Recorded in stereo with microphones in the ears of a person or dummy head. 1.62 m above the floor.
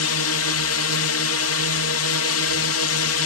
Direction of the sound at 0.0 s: 65° left (ahead or behind).